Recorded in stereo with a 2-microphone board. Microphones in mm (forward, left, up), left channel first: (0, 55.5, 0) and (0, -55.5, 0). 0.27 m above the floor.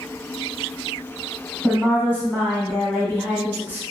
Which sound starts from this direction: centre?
A woman speaking, at 1.6 s.